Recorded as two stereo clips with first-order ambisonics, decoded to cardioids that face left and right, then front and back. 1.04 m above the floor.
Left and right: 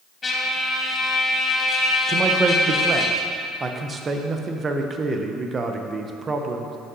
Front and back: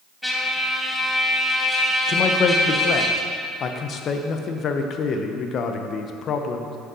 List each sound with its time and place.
0.2 s a trumpet: 75° left, 0.9 m
2.1 s a man speaking: 30° right, 0.5 m